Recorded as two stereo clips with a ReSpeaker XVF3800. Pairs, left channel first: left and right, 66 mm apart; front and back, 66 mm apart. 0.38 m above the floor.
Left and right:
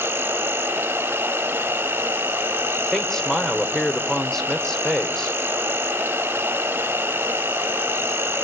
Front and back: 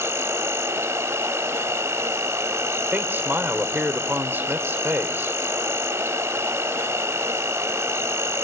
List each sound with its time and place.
0.0 s an insect: 140° right, 0.7 m
2.9 s a man speaking: 165° left, 1.4 m